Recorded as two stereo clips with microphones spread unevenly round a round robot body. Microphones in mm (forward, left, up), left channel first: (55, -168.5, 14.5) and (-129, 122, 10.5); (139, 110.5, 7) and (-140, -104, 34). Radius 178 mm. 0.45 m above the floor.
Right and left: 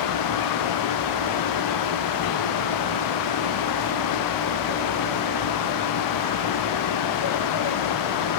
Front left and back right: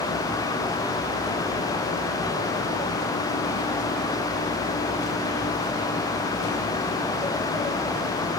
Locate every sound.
Only background noise.